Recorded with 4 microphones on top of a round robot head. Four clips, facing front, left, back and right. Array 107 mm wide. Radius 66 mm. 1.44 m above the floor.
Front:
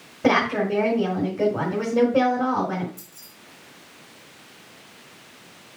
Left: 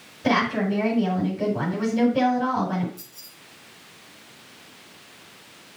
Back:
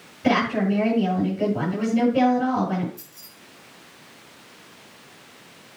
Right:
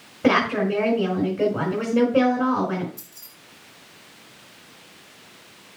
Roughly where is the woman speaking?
Ahead right.